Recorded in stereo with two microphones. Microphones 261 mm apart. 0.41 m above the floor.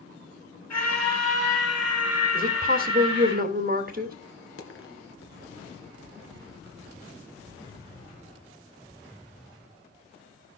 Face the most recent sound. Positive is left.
turn(degrees=55)  # may be behind; listen again after turning